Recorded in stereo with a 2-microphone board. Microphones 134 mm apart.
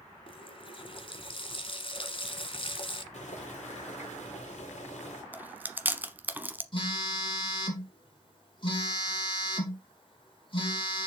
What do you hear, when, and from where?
0.3 s a running tap: 45° left (ahead or behind), 1.1 m
3.1 s boiling: 60° left (ahead or behind), 3.5 m
5.3 s chewing: 15° right (ahead or behind), 0.9 m
6.7 s a phone buzzing: 40° left (ahead or behind), 4 m